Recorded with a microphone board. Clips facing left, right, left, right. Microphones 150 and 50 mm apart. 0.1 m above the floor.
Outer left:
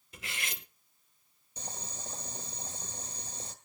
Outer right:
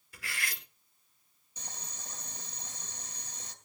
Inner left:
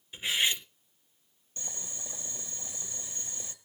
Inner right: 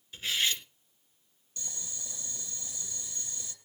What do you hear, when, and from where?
0.1 s cutlery clinking: 20° left (ahead or behind), 0.8 m
1.6 s boiling: 30° left (ahead or behind), 1.9 m